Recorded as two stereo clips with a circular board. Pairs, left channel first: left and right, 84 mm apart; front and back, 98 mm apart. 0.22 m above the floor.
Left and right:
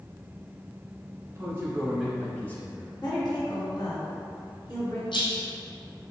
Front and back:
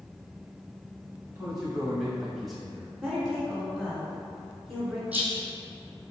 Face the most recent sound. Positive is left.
turn(degrees=105)